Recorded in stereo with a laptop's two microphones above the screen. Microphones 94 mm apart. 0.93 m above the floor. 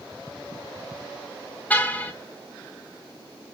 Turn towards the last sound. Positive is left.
turn(degrees=15)  # may be behind; listen again after turning